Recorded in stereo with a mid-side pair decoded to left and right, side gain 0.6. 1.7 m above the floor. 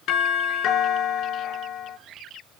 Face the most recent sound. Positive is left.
turn(degrees=65)